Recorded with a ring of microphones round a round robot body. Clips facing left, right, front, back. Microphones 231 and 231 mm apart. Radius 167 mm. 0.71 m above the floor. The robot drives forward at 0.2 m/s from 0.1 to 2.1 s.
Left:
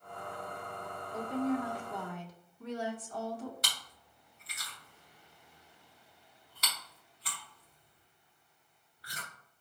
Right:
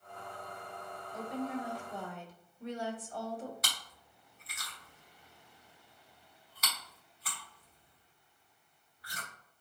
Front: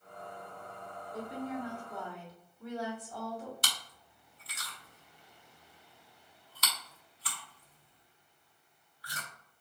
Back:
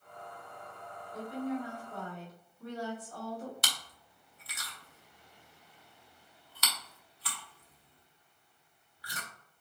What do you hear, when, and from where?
1.1 s a woman speaking: 70° left, 1.5 m; by 3.5 s 75° left, 1.5 m
3.6 s chewing: 155° left, 1.0 m